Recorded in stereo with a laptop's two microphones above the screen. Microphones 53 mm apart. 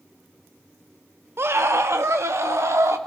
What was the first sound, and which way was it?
A scream, 55° right (ahead or behind).